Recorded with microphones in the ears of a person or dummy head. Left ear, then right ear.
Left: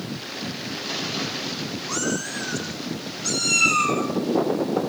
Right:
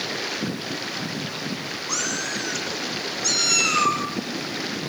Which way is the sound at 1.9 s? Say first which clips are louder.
Right 1 dB; 40° right (ahead or behind).